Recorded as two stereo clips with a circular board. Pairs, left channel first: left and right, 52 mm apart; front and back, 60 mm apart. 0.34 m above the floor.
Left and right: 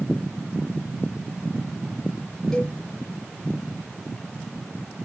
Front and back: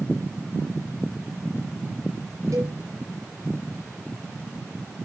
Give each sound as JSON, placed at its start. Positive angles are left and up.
{"t": 2.5, "sound": "a cowbell", "azimuth_deg": 175, "distance_m": 5.0}